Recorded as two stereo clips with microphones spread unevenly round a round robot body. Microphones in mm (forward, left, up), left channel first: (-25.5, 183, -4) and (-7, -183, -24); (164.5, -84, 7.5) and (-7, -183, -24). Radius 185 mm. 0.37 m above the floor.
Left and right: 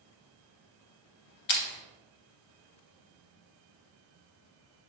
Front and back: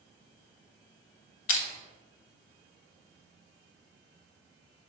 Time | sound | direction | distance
1.5 | crushing | 30° left | 0.6 m